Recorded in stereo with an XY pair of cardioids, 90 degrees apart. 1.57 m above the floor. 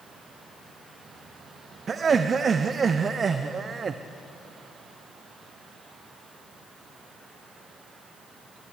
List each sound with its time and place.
1.9 s laughter: 45° right, 0.5 m